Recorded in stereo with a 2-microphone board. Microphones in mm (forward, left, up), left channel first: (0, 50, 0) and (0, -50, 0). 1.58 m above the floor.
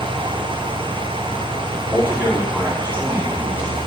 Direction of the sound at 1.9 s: 25° right (ahead or behind).